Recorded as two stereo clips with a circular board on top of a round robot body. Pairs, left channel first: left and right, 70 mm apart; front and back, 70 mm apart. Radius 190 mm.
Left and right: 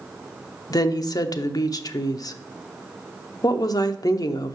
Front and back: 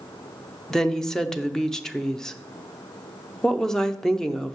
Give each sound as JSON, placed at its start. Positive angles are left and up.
{"t": 0.7, "sound": "a woman speaking", "azimuth_deg": 80, "distance_m": 0.9}